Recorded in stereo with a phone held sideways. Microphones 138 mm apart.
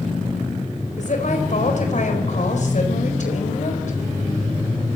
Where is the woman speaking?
65° left (ahead or behind), 4.5 m.